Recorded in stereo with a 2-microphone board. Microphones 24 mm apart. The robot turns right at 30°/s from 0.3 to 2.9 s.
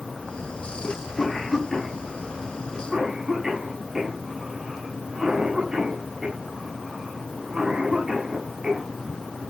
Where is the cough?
35° left (ahead or behind), 8 m; by 8.9 s 25° right (ahead or behind), 8 m.